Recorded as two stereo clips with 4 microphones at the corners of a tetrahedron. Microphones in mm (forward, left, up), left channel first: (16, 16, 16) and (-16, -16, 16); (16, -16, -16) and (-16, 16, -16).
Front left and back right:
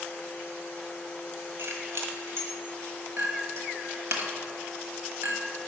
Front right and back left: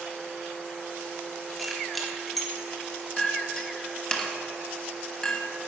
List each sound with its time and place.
1.6 s keys jangling: 135° right, 1.4 m
3.2 s a clink: 115° right, 1.3 m